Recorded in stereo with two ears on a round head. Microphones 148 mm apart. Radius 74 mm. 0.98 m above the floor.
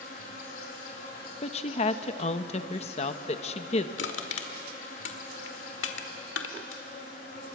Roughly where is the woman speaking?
Left.